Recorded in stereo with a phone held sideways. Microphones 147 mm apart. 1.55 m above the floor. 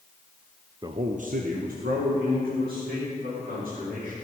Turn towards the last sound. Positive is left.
turn(degrees=-80)